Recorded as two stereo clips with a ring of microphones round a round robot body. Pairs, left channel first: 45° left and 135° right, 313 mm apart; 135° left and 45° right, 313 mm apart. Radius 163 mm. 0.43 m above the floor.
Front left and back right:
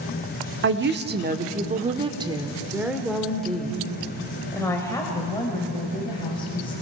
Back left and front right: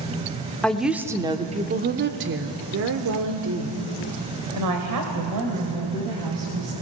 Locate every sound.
0.6 s a woman speaking: 140° right, 1.1 m; by 6.7 s 30° right, 3 m